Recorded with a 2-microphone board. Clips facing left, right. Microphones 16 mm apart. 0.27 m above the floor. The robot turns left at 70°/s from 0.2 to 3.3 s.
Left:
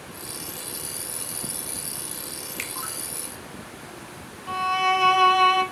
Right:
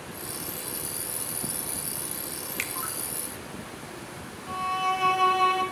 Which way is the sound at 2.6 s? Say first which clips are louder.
Right 1 dB; centre (ahead or behind).